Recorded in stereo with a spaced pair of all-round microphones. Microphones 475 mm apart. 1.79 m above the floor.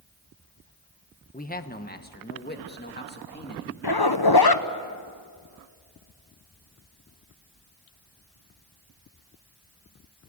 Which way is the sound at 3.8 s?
50° left (ahead or behind).